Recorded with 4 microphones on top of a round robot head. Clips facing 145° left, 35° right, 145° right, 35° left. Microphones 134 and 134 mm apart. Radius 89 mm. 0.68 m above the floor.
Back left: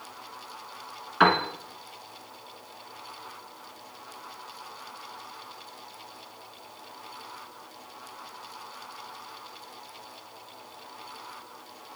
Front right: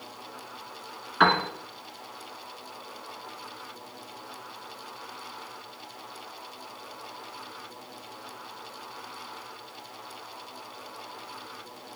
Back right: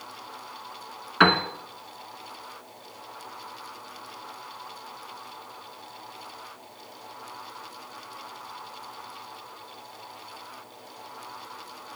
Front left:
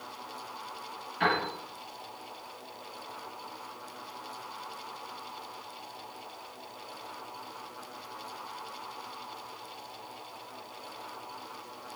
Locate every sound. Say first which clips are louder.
1.2 s a piano: back left 1 dB, back right 7 dB; 130° right, 1.5 m